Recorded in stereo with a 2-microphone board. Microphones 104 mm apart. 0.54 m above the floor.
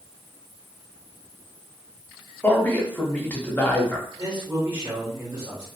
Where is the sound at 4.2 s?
40° right (ahead or behind), 1.6 m.